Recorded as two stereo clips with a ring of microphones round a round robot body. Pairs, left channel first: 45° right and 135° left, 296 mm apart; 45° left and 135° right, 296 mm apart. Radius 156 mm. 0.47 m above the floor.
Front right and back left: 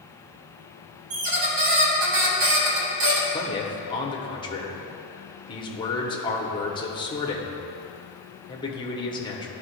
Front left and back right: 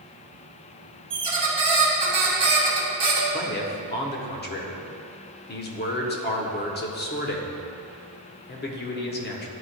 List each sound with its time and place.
1.1 s a squeak: 150° left, 1.6 m
3.3 s a man speaking: 20° left, 1.1 m